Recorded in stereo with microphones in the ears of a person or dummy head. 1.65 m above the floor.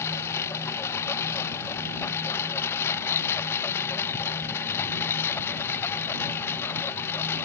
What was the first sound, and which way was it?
A lawn mower, 15° left (ahead or behind).